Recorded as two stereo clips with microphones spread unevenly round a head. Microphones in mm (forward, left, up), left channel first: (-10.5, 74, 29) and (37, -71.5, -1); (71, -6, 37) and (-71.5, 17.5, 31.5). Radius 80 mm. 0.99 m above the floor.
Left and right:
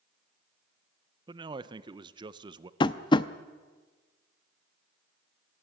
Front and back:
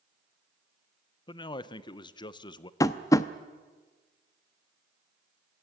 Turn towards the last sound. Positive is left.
turn(degrees=55)